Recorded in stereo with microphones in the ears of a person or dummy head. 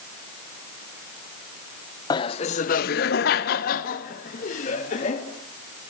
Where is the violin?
No violin in this recording.